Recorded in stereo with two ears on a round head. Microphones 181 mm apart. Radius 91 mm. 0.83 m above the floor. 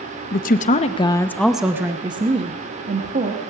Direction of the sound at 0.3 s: 45° left (ahead or behind).